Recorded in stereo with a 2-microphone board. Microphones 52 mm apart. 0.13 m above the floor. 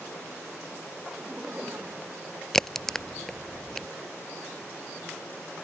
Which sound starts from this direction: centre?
A crack, at 2.5 s.